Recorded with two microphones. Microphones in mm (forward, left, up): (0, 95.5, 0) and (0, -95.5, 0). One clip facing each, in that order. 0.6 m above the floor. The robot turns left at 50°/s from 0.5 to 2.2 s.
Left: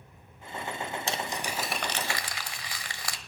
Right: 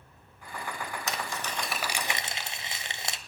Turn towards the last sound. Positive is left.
turn(degrees=-25)